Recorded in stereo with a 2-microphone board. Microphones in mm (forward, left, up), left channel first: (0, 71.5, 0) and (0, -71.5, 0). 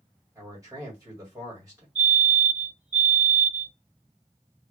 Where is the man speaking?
25° right (ahead or behind), 1.5 m.